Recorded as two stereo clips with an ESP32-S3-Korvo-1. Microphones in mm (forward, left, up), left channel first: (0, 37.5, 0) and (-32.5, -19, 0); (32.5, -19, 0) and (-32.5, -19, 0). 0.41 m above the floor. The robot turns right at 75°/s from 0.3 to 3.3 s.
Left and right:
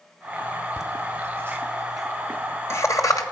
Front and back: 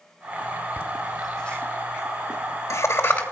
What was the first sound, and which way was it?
Laughter, 120° right.